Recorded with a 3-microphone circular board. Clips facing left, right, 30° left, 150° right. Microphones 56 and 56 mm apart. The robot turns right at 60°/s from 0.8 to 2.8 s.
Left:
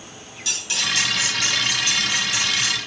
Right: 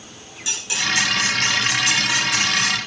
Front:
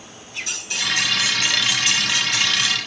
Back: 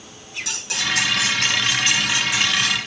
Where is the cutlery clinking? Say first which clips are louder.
Right 2 dB, back 1 dB; 160° right, 9.5 m; by 2.8 s 40° right, 9.5 m.